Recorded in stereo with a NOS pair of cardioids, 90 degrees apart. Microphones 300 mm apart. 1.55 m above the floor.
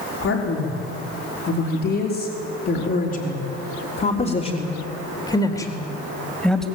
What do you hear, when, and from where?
0.2 s a man speaking: 55° left, 5 m; by 6.7 s straight ahead, 3 m